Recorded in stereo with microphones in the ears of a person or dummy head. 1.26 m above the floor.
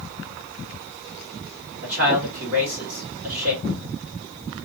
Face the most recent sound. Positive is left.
turn(degrees=-25)  # may be behind; listen again after turning